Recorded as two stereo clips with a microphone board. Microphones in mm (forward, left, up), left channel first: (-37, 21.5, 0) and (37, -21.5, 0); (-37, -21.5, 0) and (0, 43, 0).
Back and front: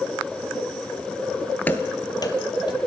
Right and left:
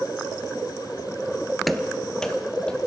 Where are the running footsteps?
150° left, 0.8 m; by 2.8 s 165° left, 1.8 m.